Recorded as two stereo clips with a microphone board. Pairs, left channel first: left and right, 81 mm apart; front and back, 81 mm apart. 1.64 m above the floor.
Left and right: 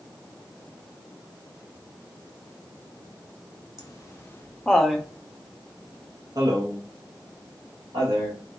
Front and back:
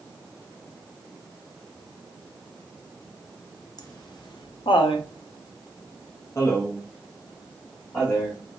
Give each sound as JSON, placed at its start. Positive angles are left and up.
{"t": 3.8, "sound": "laughter", "azimuth_deg": 45, "distance_m": 1.1}